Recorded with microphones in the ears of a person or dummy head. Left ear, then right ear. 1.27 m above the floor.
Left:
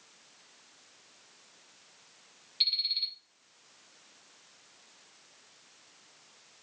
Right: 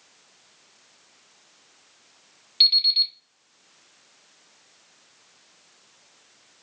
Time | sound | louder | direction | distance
2.6 | an alarm clock | right 11 dB | 30° right (ahead or behind) | 2.5 m